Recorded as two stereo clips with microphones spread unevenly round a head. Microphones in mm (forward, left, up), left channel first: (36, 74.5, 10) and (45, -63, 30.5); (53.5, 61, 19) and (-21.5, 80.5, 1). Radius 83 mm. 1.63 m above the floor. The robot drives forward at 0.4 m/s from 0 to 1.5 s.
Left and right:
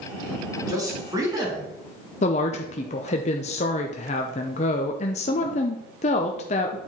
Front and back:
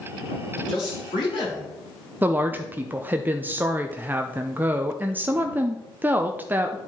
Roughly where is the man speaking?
Ahead right.